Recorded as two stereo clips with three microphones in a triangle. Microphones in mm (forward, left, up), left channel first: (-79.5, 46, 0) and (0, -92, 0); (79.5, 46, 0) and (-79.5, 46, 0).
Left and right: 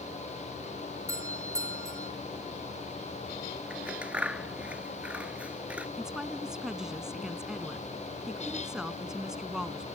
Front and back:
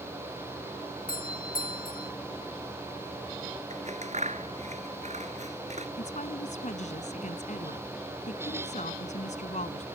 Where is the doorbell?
10° left.